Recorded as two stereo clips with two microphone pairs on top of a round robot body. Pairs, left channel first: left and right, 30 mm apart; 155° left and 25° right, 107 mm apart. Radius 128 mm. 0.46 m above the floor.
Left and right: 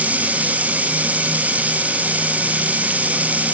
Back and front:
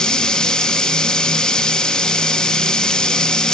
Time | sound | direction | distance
0.0 | running water | 125° right | 0.7 m